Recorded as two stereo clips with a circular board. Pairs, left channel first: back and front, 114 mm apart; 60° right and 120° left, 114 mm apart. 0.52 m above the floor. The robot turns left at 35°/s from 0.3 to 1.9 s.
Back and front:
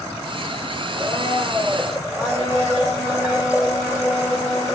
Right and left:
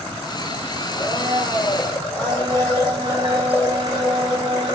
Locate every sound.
1.0 s a blender: 55° right, 1.5 m; by 4.8 s 85° right, 1.5 m